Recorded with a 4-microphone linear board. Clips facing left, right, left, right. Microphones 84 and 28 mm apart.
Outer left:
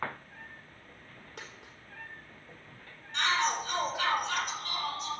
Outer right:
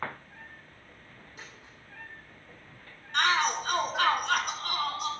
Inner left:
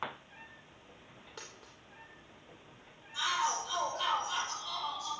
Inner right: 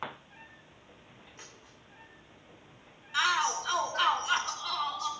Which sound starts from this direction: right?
A shout, at 3.1 s.